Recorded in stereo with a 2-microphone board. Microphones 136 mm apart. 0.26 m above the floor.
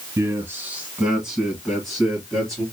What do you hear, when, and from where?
0.2 s a man speaking: 20° right (ahead or behind), 1.3 m; by 2.6 s 5° left (ahead or behind), 3 m